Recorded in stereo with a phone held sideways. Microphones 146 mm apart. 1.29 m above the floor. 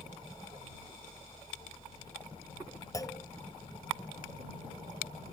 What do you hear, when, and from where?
0.0 s a fan: 35° left (ahead or behind)
2.9 s a clunk: 25° left (ahead or behind)